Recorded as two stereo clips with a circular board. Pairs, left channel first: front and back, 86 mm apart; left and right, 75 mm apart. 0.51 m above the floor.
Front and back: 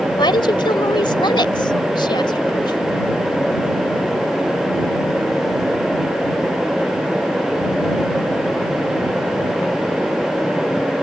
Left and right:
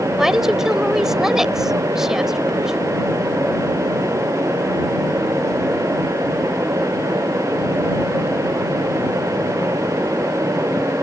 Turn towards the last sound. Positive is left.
turn(degrees=-5)